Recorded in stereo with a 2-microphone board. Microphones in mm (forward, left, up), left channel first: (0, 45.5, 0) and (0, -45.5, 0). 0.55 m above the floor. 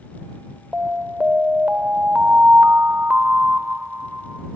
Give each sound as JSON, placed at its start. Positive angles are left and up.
{"t": 0.7, "sound": "an alarm", "side_deg": -15}